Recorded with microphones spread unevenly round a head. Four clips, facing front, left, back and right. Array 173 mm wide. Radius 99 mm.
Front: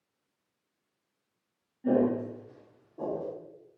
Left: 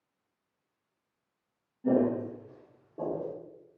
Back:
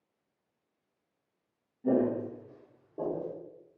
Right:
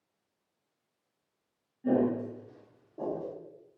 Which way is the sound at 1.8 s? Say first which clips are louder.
Left 1 dB, front 2 dB; 25° left.